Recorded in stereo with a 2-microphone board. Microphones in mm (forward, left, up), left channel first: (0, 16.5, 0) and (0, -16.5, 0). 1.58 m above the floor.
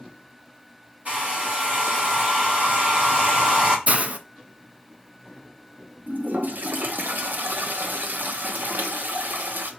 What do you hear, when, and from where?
1.1 s a hair dryer: 45° right (ahead or behind), 1.9 m
3.9 s a hiss: 40° right (ahead or behind), 0.5 m
6.1 s a toilet flushing: 70° right (ahead or behind), 0.7 m